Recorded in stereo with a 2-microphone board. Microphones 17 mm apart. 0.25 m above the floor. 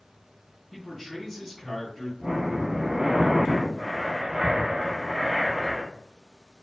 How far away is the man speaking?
About 1.9 m.